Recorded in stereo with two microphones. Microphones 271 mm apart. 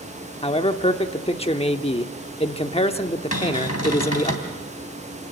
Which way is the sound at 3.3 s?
70° left (ahead or behind).